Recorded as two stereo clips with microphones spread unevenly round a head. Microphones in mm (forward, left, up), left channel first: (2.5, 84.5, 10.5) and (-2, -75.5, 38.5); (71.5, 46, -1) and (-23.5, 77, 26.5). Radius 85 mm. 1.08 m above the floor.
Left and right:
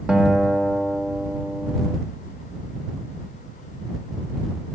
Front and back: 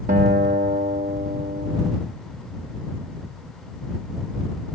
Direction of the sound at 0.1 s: Straight behind.